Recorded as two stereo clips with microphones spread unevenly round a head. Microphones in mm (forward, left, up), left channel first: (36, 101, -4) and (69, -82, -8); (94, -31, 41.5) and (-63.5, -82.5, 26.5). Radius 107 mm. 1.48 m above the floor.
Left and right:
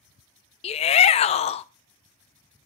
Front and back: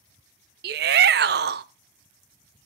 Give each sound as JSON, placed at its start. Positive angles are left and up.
{"t": 0.6, "sound": "a shout", "azimuth_deg": 155, "distance_m": 0.6}